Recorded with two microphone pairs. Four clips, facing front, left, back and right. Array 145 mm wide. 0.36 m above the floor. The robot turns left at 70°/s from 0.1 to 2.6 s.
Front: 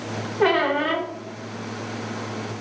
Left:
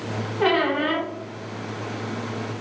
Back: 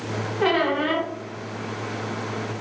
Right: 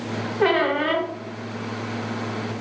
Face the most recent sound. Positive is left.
turn(degrees=-155)